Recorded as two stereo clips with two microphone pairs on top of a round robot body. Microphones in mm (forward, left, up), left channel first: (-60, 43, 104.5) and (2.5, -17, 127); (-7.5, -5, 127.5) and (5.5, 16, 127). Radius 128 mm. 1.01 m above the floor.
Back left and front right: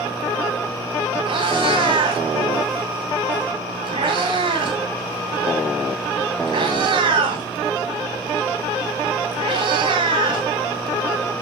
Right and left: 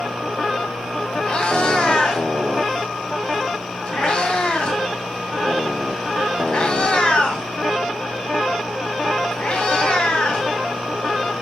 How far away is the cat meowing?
About 1.8 m.